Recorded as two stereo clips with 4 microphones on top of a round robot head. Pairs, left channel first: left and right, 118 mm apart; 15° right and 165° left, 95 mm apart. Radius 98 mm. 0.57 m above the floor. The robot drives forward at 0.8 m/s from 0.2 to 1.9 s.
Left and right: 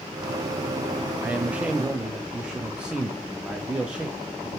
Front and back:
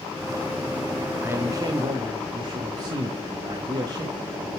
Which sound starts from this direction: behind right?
A man speaking, at 1.2 s.